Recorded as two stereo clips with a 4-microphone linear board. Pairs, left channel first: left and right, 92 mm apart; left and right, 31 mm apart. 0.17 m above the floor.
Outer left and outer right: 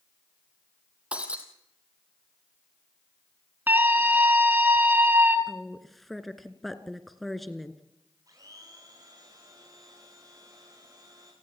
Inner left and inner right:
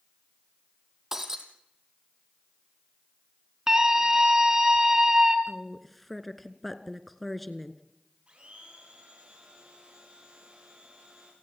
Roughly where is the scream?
Right.